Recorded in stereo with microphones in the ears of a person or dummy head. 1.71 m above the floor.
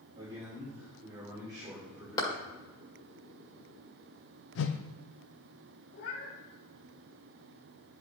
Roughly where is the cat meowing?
Left.